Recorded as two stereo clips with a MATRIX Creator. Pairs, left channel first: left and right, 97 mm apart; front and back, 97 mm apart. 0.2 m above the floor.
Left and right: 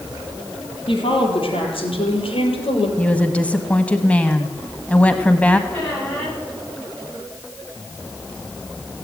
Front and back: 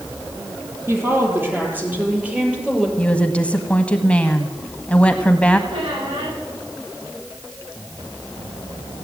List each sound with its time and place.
0.9 s a woman speaking: 115° left, 4.5 m; by 2.9 s 100° left, 4 m
3.0 s a woman speaking: 45° left, 1.1 m
5.7 s a squeak: 165° left, 10 m